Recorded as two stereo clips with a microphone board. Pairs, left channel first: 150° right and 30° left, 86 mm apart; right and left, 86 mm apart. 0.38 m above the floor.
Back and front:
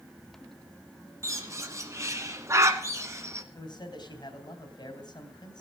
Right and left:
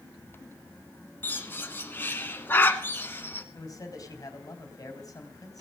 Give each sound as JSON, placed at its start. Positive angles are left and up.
{"t": 1.2, "sound": "a bird", "azimuth_deg": -25, "distance_m": 1.3}
{"t": 3.5, "sound": "a man speaking", "azimuth_deg": -130, "distance_m": 3.0}